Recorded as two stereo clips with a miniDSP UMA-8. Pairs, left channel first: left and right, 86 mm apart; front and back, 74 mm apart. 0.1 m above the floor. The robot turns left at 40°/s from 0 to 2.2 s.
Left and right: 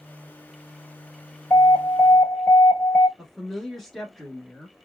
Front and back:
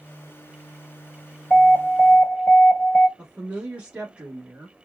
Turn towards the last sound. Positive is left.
turn(degrees=165)